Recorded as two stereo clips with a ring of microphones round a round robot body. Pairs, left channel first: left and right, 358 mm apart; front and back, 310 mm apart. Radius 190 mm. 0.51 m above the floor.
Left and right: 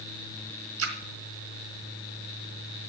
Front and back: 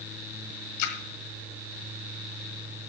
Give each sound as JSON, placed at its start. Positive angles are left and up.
{"t": 0.8, "sound": "a splash", "azimuth_deg": -35, "distance_m": 1.6}